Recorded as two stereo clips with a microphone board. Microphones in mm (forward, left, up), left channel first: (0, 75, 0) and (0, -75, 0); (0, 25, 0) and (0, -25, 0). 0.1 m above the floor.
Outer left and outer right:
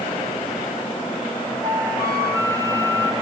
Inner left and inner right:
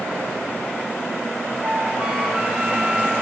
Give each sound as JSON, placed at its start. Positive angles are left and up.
{"t": 1.6, "sound": "a flute", "side_deg": -20, "distance_m": 1.6}